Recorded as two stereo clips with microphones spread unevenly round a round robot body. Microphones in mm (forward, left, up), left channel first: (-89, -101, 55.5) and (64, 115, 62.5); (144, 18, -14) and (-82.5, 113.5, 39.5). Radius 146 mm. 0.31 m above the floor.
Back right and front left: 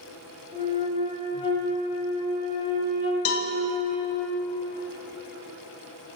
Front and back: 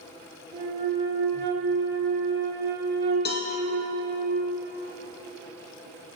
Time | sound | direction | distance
0.5 | a flute | 165° left | 1.3 m
3.2 | a cowbell | 80° right | 0.5 m